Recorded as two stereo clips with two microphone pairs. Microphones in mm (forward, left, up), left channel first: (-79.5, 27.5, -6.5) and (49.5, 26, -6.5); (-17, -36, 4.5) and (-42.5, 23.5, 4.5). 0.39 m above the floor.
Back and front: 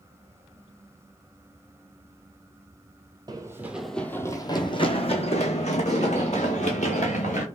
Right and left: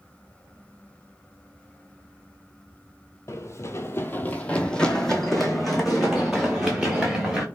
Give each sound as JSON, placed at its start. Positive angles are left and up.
{"t": 3.3, "sound": "running footsteps", "azimuth_deg": -50, "distance_m": 0.5}